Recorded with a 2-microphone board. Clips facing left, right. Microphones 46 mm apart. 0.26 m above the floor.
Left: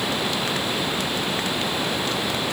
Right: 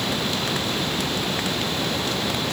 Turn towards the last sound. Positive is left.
No sound to turn to.